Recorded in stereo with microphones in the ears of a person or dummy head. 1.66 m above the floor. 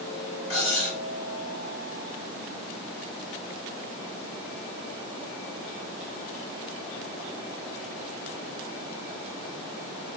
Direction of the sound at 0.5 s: 65° left (ahead or behind).